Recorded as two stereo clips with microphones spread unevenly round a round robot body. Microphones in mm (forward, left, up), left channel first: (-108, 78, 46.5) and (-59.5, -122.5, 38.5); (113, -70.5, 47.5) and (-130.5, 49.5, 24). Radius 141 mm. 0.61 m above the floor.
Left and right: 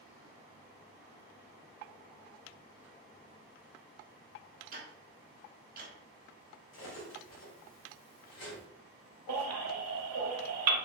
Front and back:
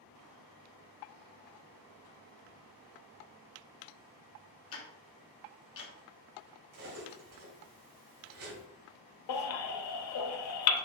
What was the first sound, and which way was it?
Ticking, 45° right.